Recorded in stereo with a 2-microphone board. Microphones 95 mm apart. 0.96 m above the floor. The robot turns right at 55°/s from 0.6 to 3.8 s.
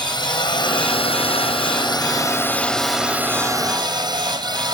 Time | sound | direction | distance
0.0 | a drone | 55° left | ?